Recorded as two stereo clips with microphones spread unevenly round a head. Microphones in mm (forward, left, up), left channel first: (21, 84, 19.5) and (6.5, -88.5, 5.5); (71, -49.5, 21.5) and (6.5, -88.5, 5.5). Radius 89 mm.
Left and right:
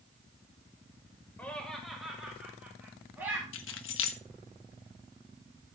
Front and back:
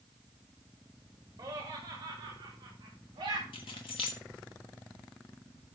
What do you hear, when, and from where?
1.4 s laughter: 170° left, 1.8 m; by 3.4 s 175° right, 4 m
3.5 s keys jangling: 75° left, 1.2 m